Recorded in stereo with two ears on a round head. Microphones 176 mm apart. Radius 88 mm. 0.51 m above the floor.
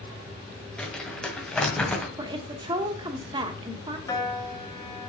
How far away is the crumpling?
About 2.0 m.